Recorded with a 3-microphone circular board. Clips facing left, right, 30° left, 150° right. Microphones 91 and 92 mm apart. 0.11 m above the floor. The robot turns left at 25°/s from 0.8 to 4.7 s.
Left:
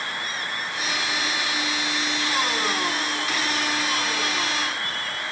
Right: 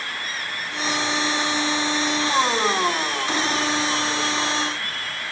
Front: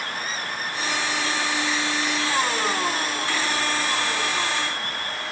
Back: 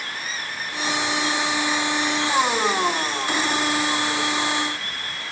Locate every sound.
Only background noise.